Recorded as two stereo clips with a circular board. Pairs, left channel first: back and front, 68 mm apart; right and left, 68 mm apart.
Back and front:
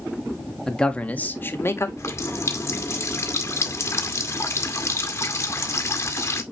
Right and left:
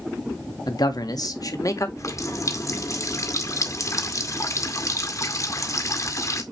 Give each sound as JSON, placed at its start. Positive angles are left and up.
{"t": 0.7, "sound": "a man speaking", "azimuth_deg": -100, "distance_m": 1.8}
{"t": 2.0, "sound": "a running tap", "azimuth_deg": -130, "distance_m": 2.0}